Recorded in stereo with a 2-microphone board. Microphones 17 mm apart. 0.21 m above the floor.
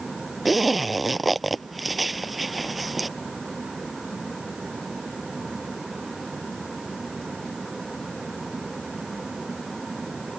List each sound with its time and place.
0.5 s a zipper: centre (ahead or behind)